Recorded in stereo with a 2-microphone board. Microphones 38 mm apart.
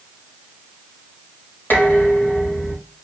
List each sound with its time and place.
1.7 s dishes clattering: 60° left (ahead or behind), 4.5 m